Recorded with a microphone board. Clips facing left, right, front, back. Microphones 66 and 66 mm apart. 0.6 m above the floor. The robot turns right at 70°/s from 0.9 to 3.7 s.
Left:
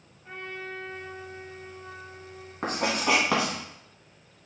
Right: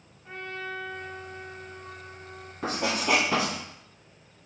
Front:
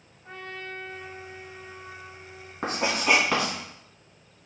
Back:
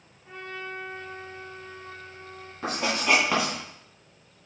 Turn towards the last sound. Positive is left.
turn(degrees=120)